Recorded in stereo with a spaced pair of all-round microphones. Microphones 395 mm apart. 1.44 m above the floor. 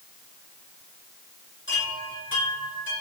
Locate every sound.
1.7 s a chime: 30° left (ahead or behind), 9.5 m